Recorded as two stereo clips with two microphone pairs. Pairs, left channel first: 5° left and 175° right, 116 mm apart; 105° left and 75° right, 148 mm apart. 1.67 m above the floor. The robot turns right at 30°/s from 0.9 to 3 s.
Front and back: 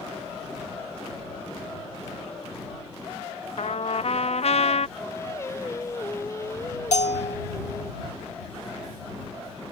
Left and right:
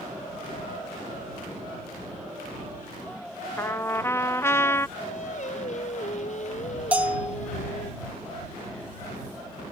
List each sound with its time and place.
3.6 s a trumpet: 30° left
5.0 s singing: 70° left
6.9 s a bell: 5° left